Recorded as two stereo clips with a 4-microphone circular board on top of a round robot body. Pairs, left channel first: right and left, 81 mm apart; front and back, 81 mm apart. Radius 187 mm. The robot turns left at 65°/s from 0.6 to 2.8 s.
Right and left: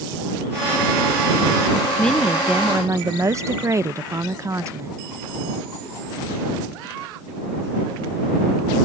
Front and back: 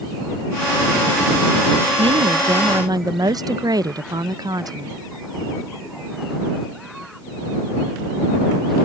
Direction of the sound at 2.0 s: 165° right.